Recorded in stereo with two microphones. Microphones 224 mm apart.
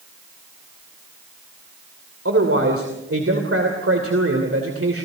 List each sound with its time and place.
2.2 s a man speaking: 75° right (ahead or behind), 2.5 m